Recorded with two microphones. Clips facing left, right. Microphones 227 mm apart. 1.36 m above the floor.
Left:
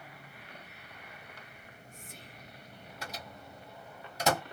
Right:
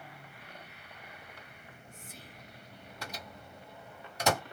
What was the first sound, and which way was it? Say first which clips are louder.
Whispering: even; centre (ahead or behind).